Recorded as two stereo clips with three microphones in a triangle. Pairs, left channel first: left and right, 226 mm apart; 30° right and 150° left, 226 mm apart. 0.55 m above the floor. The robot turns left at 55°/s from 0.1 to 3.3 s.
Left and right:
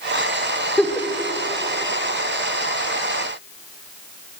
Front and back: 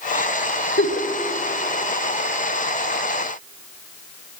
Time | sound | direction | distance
0.8 | a giggle | 5° left | 1.3 m